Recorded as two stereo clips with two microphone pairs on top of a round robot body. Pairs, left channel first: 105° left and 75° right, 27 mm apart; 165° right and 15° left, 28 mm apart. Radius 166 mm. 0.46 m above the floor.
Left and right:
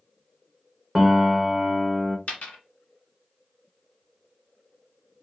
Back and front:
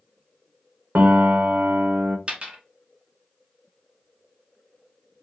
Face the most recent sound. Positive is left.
turn(degrees=65)